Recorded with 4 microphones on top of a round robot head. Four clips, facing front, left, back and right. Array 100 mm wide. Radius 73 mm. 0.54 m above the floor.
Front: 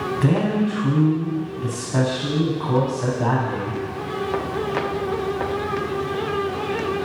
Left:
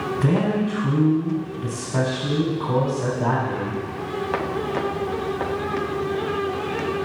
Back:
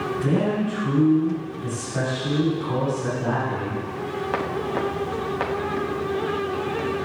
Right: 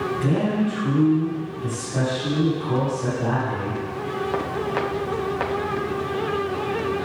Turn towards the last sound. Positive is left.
turn(degrees=30)